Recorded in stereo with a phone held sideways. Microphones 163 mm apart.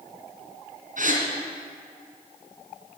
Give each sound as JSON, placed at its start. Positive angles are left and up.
{"t": 1.0, "sound": "a gasp", "side_deg": -60, "distance_m": 4.0}